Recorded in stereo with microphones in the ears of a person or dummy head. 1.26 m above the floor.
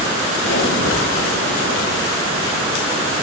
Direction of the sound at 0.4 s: 85° left.